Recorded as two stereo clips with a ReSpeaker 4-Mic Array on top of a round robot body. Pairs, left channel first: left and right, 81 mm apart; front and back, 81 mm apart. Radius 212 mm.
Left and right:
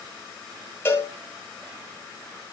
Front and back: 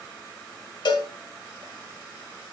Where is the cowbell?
25° left, 1.9 m.